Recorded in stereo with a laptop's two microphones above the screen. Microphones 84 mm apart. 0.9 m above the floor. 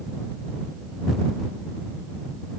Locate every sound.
Only background noise.